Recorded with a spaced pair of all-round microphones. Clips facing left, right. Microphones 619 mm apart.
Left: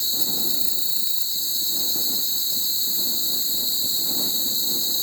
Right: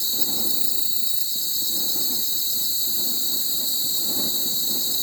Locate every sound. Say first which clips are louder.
0.0 s an insect: even; 55° right (ahead or behind)